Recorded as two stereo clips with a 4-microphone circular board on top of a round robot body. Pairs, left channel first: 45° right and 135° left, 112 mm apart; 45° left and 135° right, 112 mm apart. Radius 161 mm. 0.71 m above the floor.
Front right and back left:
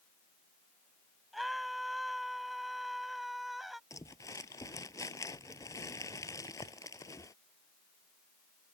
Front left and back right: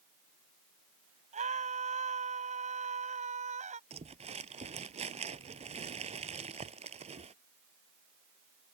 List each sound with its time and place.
1.3 s a scream: 135° right
3.9 s crumpling: 105° right